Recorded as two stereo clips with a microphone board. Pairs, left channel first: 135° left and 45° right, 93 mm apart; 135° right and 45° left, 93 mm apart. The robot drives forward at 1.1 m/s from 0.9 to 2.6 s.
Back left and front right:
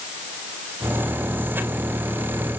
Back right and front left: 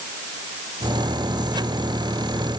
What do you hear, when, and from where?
Only background noise.